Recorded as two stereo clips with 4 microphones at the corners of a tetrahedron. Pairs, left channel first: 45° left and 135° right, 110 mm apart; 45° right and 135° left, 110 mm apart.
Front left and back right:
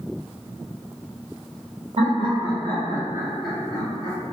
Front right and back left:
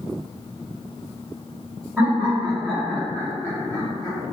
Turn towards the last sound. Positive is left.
turn(degrees=15)